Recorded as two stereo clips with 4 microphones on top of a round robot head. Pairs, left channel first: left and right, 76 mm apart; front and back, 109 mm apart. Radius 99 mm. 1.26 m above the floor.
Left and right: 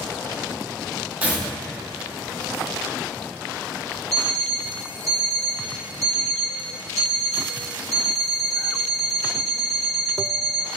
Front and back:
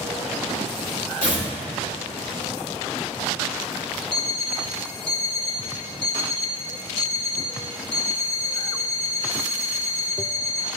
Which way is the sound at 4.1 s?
50° right.